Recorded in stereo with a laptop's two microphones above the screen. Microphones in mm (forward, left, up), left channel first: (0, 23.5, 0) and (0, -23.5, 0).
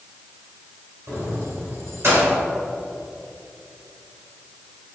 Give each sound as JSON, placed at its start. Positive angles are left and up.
{"t": 1.1, "sound": "keys jangling", "side_deg": -80, "distance_m": 2.5}